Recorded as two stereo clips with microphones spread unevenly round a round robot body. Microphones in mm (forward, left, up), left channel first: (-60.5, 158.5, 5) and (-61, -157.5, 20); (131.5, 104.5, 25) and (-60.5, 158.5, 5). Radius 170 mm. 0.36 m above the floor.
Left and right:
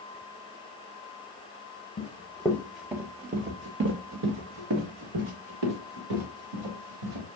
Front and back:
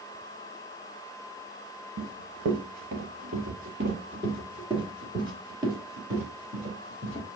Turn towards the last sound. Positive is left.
turn(degrees=-90)